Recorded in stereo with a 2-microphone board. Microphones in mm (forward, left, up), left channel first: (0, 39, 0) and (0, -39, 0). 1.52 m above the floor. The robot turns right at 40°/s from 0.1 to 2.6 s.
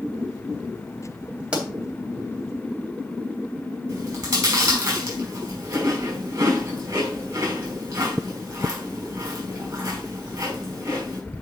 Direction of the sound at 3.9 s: 55° right (ahead or behind).